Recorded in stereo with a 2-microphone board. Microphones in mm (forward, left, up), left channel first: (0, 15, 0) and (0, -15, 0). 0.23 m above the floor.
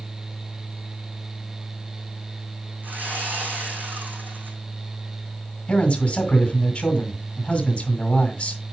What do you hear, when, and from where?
2.8 s sawing: 75° right (ahead or behind), 3.5 m
5.7 s a man speaking: 35° left (ahead or behind), 1.9 m